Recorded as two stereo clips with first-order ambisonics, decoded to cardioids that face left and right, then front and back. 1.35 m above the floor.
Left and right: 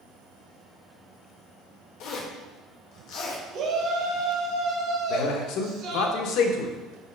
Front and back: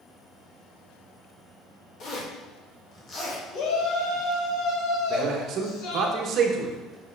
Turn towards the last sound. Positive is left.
turn(degrees=125)